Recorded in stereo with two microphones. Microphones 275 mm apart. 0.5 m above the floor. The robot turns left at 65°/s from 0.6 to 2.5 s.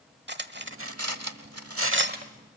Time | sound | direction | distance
0.3 | cutlery clinking | 40° right (ahead or behind) | 1.0 m